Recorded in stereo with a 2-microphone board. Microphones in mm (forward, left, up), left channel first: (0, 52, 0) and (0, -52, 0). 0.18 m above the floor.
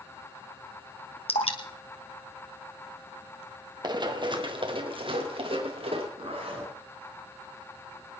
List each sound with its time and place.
1.3 s dripping: 70° left (ahead or behind), 1.6 m
3.8 s running footsteps: 45° right (ahead or behind), 1.9 m; by 6.1 s 65° right (ahead or behind), 3.5 m
6.2 s a zipper: 75° right (ahead or behind), 8 m